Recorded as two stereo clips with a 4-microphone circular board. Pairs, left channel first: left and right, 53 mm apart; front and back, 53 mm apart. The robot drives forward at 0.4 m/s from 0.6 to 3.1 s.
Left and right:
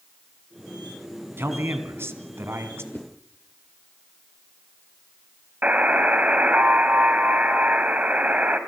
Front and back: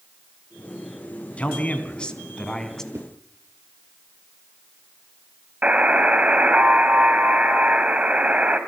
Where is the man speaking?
60° right, 2.5 m; by 2.8 s 80° right, 2.5 m.